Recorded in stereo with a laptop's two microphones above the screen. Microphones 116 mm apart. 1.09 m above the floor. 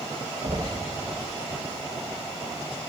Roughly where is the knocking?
Right.